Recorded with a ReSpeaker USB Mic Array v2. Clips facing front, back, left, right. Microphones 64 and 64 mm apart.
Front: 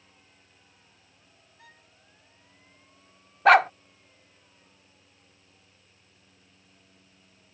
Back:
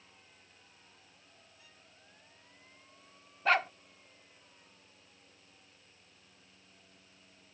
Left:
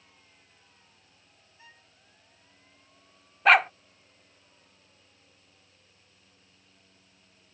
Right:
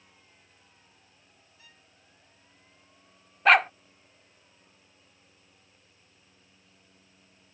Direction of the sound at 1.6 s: 30° left.